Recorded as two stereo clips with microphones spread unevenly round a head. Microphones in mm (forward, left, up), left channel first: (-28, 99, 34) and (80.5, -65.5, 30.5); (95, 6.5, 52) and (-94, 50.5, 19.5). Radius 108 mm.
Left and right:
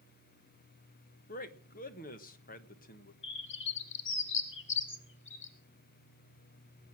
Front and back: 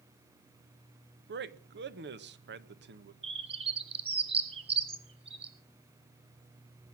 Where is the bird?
105° left, 2.5 m.